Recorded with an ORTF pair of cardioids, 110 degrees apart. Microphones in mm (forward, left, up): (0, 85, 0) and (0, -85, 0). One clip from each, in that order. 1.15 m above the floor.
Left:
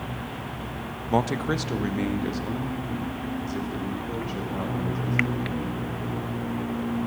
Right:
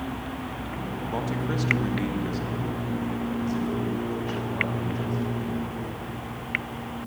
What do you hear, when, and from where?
1.1 s a man speaking: 50° left, 0.9 m; by 5.7 s straight ahead, 5 m